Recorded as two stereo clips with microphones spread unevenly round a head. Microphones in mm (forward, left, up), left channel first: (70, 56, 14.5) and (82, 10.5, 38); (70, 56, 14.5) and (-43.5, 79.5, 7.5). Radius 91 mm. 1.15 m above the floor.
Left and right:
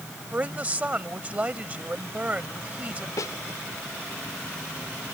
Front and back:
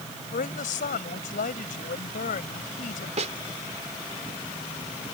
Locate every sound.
0.3 s a woman speaking: 25° right
3.2 s a snare drum: 145° left